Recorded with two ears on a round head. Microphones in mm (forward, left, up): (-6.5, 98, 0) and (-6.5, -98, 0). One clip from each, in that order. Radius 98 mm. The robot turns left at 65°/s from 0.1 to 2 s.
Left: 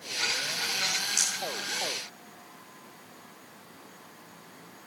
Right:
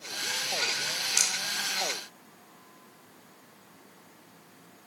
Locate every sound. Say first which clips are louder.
1.2 s a rattle: right 5 dB; 25° right (ahead or behind), 3.5 m; by 1.4 s 15° right (ahead or behind), 3.5 m